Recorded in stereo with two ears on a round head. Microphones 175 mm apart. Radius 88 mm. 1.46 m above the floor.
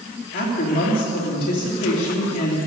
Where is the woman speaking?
45° left (ahead or behind), 3.5 m.